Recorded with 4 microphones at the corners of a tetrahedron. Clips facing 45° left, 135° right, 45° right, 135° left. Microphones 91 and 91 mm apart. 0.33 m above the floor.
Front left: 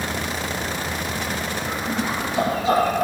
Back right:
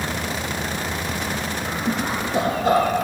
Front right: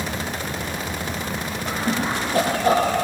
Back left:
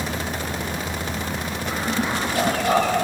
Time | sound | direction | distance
1.6 | laughter | 95° right | 8.5 m